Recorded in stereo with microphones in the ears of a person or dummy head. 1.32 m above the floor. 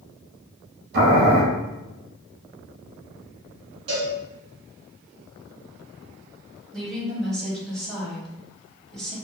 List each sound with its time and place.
0.9 s boiling: 50° right (ahead or behind), 1.0 m
3.9 s a cowbell: 25° right (ahead or behind), 1.0 m
6.7 s a woman speaking: 5° left (ahead or behind), 0.9 m